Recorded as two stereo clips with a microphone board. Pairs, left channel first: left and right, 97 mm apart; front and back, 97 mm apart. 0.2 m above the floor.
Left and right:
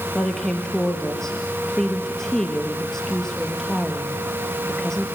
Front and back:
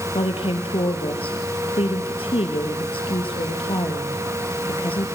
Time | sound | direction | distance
0.1 | a woman speaking | 5° left | 3.5 m